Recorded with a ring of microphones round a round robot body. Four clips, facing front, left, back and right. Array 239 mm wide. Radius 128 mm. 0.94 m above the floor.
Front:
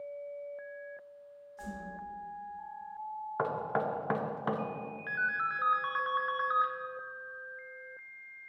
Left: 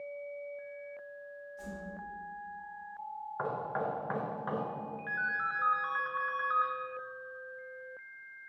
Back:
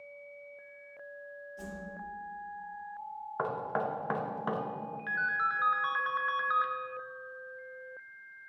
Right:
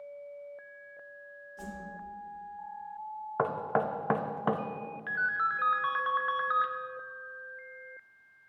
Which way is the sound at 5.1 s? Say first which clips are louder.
Right 5 dB, back 2 dB; 100° right.